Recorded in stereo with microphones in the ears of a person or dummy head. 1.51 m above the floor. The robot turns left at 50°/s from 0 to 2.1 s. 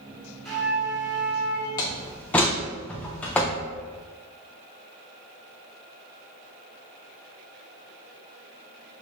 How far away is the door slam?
About 0.5 m.